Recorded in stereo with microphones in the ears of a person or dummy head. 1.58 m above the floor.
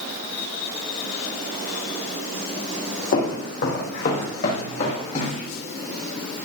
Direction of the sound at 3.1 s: 60° left (ahead or behind).